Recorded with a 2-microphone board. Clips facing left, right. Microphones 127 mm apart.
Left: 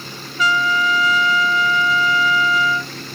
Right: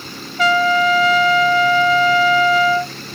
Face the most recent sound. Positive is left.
turn(degrees=-65)  # may be behind; listen again after turning